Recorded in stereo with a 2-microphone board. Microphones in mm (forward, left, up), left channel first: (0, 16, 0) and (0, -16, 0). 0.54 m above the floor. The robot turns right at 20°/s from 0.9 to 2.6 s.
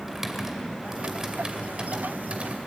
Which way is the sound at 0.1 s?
15° right (ahead or behind).